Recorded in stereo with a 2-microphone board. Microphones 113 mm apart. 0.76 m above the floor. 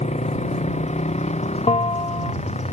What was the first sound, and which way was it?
A motorcycle, 75° left (ahead or behind).